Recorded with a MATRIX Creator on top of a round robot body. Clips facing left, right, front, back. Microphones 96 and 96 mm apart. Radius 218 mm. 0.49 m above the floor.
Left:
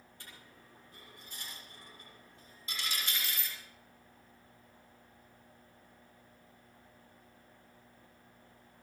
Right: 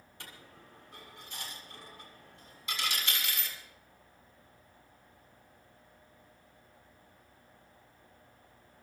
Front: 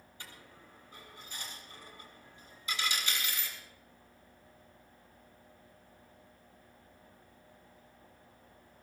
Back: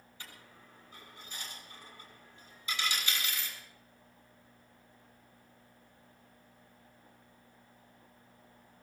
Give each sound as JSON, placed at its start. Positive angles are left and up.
{"t": 0.2, "sound": "a dropped coin", "azimuth_deg": -80, "distance_m": 6.5}